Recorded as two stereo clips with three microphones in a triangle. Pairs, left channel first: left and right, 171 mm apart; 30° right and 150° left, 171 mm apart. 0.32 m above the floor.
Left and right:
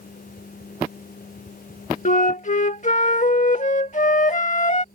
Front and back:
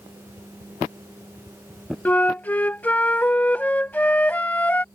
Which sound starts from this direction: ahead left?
A flute, at 2.0 s.